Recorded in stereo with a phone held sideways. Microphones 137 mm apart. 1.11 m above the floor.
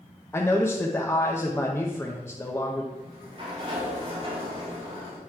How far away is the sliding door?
About 2.5 m.